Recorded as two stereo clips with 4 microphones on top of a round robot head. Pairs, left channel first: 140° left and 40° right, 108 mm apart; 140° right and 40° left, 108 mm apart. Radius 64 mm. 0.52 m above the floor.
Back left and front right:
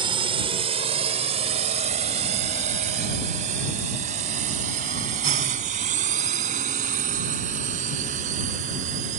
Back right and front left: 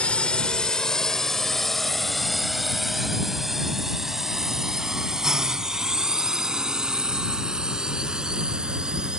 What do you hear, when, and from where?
0.0 s a drone: 60° right; by 9.2 s 45° right